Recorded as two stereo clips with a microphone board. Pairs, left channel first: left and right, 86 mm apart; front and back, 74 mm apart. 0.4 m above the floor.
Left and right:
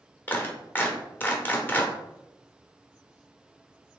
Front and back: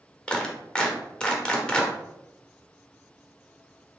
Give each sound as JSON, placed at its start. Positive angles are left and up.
{"t": 0.3, "sound": "a clap", "azimuth_deg": 60, "distance_m": 0.8}